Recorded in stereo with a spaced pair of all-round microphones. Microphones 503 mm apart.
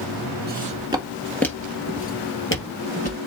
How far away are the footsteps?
About 1.6 m.